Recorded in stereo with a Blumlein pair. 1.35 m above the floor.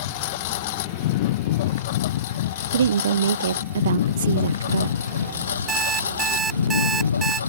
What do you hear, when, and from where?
0.0 s a lawn mower: 50° left; by 7.5 s 70° left
2.7 s a woman speaking: 65° right
5.7 s an alarm clock: 20° right